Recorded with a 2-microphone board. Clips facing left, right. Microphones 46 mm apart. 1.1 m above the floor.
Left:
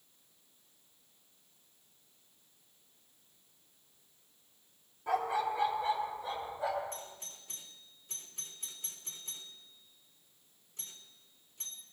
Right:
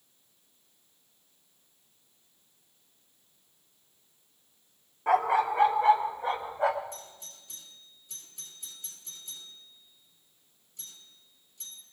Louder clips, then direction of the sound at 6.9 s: Even; 50° left (ahead or behind).